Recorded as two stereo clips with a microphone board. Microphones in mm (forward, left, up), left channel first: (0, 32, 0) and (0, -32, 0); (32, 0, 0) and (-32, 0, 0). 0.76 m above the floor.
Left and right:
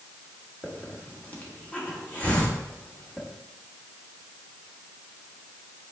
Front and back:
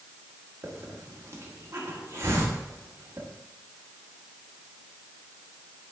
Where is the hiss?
150° left, 1.6 m.